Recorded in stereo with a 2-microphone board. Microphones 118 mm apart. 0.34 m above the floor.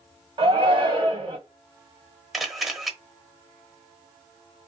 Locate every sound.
0.4 s a shout: 45° right (ahead or behind), 2 m
2.3 s a camera shutter: centre (ahead or behind), 1.1 m